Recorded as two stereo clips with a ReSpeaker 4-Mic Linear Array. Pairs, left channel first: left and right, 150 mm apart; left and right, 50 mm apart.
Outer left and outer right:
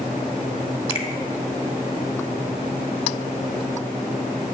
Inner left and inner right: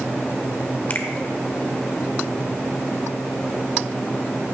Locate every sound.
0.9 s a finger snap: 35° left (ahead or behind), 1.0 m